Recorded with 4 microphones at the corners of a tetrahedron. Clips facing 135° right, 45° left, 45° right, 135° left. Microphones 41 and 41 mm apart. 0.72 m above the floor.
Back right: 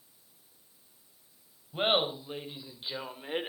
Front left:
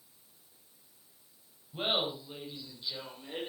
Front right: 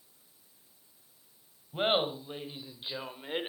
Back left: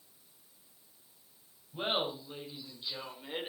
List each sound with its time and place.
1.7 s laughter: 85° right, 4.5 m; by 3.5 s 110° right, 2.5 m